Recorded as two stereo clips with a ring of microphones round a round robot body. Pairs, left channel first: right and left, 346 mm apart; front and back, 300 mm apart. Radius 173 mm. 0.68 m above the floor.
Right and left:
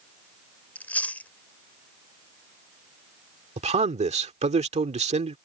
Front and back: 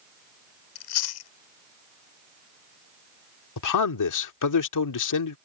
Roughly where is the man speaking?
Ahead.